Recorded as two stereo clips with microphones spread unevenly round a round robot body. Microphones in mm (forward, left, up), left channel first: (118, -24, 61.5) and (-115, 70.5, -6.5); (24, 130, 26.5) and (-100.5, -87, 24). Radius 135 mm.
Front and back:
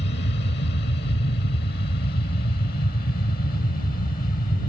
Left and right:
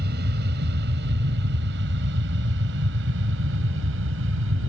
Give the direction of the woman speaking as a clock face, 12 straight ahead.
I don't hear a woman speaking.